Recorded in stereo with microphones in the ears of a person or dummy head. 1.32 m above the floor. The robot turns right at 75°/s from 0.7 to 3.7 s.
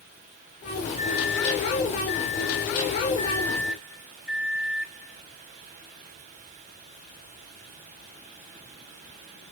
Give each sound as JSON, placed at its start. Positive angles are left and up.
{"t": 1.0, "sound": "a microwave", "azimuth_deg": -25, "distance_m": 2.5}